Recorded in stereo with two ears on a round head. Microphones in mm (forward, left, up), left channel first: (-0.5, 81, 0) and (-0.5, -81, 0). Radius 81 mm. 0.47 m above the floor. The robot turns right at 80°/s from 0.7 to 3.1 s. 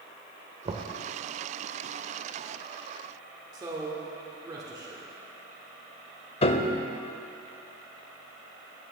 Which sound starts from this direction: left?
A piano, at 6.4 s.